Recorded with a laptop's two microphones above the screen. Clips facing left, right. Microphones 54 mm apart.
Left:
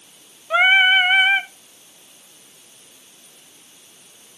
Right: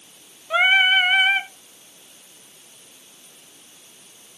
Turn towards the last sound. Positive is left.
turn(degrees=15)  # may be behind; listen again after turning